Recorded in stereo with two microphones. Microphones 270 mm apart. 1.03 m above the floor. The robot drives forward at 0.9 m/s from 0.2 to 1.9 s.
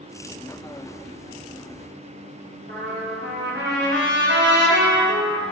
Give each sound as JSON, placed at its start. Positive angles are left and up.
{"t": 2.7, "sound": "a trumpet", "side_deg": -40, "distance_m": 0.6}